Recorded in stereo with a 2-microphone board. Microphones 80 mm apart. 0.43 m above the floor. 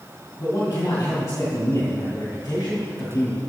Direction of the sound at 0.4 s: 45° left (ahead or behind).